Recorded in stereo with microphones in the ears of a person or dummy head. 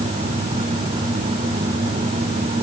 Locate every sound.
Only background noise.